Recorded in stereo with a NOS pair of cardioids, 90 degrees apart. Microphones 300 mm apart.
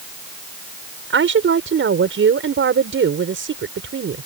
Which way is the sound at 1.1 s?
40° right.